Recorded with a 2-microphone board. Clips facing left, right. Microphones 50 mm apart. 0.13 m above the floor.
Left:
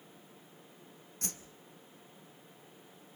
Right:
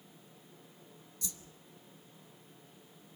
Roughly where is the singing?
No singing in this recording.